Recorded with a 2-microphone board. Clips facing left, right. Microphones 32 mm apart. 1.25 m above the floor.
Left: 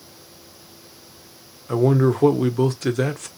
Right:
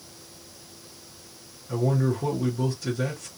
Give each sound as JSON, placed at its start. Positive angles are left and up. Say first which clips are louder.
{"t": 1.7, "sound": "a man speaking", "louder": "left 7 dB", "side_deg": 65, "distance_m": 0.6}